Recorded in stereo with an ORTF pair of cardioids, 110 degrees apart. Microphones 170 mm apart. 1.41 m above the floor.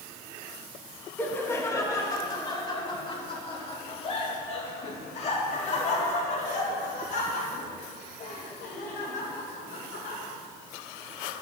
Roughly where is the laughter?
Ahead.